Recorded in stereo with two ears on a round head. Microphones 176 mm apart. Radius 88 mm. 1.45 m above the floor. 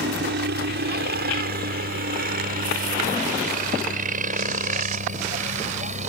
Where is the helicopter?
55° right (ahead or behind); by 6.1 s 35° right (ahead or behind).